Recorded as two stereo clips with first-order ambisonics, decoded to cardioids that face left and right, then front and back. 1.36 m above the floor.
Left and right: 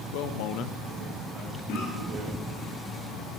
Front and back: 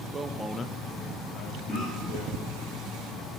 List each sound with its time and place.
0.1 s a man speaking: 105° left, 1.1 m; by 2.7 s 40° right, 3 m
1.7 s a cough: 90° left, 7.5 m